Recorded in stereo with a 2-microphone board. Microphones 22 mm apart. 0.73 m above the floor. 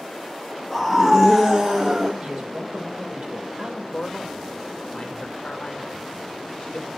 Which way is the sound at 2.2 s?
60° right (ahead or behind).